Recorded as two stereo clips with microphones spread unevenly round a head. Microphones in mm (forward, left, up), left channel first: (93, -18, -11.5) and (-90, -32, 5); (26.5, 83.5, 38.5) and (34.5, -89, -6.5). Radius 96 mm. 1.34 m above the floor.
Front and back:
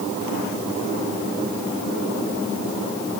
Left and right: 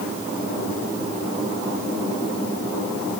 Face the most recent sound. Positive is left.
No sound to turn to.